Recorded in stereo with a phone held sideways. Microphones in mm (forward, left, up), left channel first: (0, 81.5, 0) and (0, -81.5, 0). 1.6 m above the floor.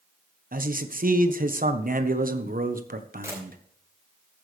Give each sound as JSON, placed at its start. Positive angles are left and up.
{"t": 0.5, "sound": "a man speaking", "side_deg": -60, "distance_m": 1.2}
{"t": 3.2, "sound": "a camera shutter", "side_deg": -15, "distance_m": 4.5}